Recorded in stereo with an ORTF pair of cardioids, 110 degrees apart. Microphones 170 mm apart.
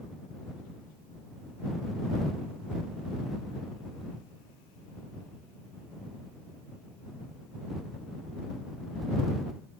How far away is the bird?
I don't hear a bird.